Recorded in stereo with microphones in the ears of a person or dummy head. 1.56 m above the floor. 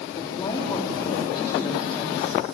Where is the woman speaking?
25° left (ahead or behind), 4 m.